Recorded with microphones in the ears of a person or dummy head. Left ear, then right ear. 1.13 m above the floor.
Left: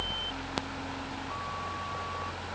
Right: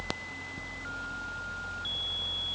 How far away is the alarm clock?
No alarm clock in this recording.